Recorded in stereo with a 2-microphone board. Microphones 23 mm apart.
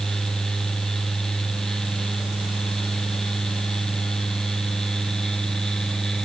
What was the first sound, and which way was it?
Only background noise.